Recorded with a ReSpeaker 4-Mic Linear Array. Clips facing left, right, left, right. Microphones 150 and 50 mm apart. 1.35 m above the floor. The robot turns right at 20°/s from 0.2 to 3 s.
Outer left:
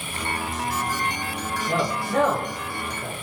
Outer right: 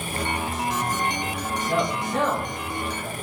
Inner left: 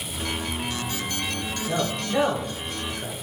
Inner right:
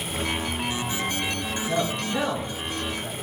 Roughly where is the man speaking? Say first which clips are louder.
Even, even; left.